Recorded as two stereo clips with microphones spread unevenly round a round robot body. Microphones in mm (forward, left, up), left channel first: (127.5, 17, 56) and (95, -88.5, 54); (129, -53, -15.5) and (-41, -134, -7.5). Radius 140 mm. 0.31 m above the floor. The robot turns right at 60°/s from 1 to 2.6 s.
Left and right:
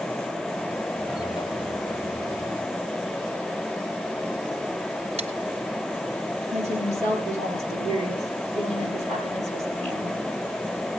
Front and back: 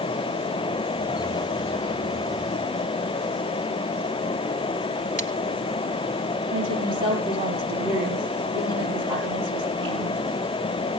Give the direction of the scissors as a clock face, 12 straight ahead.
4 o'clock.